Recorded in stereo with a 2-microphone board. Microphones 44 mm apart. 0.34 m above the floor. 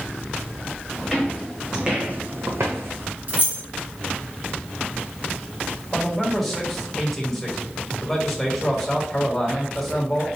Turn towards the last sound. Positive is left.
turn(degrees=5)  # may be behind; listen again after turning